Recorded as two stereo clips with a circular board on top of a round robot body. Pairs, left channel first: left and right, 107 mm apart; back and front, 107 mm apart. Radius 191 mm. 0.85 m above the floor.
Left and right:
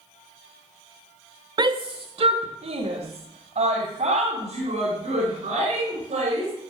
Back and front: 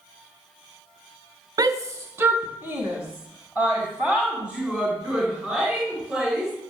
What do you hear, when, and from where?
1.6 s a shout: 50° right, 0.7 m; by 6.5 s 80° right, 5 m